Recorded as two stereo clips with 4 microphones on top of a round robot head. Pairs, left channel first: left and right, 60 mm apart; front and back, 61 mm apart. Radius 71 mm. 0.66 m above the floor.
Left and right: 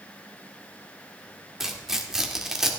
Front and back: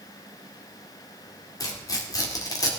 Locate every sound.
1.6 s tearing paper: 10° right, 1.9 m